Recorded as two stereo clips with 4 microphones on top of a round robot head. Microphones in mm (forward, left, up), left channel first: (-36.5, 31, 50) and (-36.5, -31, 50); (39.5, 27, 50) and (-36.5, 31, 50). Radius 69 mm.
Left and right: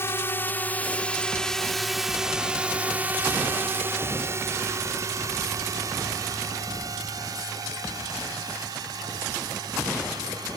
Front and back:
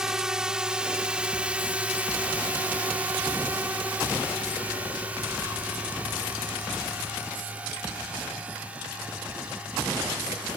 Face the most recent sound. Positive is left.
turn(degrees=-105)